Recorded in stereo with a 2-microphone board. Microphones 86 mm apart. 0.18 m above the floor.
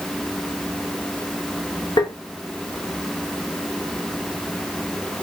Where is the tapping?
70° left (ahead or behind), 4 m.